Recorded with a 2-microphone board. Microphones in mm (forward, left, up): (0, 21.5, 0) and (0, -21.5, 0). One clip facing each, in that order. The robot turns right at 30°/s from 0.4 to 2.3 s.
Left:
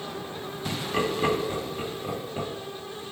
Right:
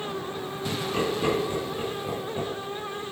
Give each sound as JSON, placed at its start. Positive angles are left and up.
{"t": 0.7, "sound": "laughter", "side_deg": 25, "distance_m": 1.6}